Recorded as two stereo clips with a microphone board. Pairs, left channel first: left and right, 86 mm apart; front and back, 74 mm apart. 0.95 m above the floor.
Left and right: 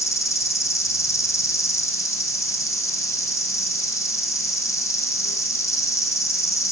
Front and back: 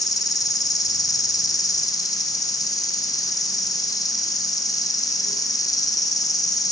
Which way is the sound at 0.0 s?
35° left.